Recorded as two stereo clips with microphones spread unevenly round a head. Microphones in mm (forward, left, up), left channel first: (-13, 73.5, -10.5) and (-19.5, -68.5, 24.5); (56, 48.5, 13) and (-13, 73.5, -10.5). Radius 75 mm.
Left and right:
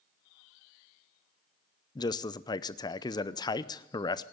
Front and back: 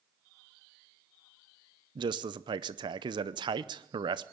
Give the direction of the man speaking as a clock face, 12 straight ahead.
7 o'clock.